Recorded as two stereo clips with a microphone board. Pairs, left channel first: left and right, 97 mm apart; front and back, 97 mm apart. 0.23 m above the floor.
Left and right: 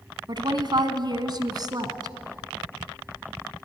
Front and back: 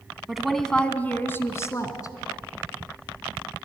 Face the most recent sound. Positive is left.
turn(degrees=-45)